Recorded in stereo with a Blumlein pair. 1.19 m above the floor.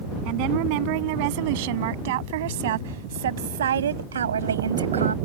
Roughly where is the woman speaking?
Ahead right.